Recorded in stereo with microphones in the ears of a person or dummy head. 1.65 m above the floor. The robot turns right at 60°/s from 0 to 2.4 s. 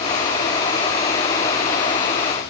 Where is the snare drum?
I don't hear a snare drum.